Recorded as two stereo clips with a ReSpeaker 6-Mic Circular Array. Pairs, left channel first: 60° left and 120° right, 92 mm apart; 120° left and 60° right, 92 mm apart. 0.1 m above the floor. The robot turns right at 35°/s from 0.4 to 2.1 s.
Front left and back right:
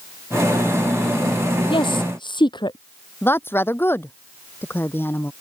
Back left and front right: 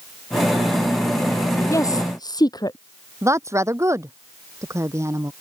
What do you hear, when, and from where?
1.7 s a woman speaking: 70° left; by 2.8 s 80° left
3.2 s a woman speaking: 5° right